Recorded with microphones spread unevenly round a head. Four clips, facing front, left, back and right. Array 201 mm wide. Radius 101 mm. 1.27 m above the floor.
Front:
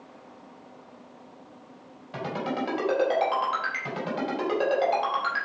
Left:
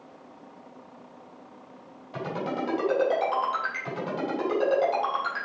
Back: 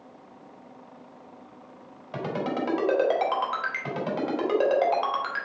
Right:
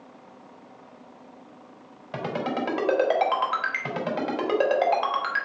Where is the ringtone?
90° right, 4.5 m.